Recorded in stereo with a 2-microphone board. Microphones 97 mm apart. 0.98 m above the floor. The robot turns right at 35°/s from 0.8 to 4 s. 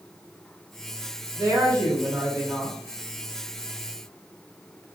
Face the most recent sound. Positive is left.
turn(degrees=45)